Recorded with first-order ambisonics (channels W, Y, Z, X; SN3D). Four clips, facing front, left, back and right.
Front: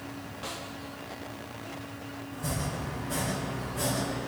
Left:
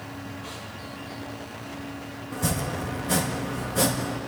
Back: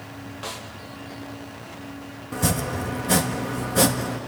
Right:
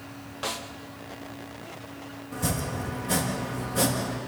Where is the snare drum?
110° right, 1.3 m.